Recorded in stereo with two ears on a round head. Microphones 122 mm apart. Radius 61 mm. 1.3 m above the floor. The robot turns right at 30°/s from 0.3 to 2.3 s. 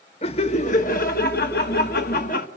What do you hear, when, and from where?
0.2 s laughter: 45° left, 1.7 m; by 2.5 s 105° left, 1.7 m